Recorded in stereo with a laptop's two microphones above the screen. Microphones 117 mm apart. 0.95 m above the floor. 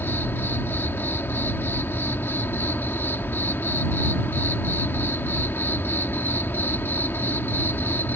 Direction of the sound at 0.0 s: 20° left (ahead or behind).